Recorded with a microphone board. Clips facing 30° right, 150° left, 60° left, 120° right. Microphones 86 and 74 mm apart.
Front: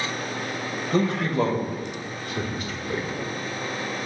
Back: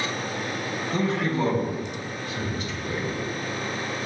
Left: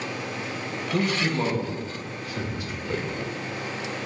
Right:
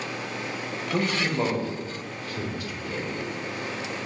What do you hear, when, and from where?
0.9 s a man speaking: 55° right, 2 m; by 3.3 s 30° left, 1.7 m